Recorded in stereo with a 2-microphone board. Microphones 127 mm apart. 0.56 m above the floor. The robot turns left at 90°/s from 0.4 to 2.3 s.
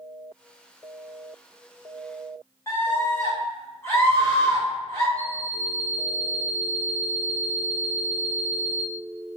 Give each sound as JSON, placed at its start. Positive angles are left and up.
{"t": 2.7, "sound": "a scream", "side_deg": 25, "distance_m": 1.9}
{"t": 5.2, "sound": "an alarm clock", "side_deg": 15, "distance_m": 1.9}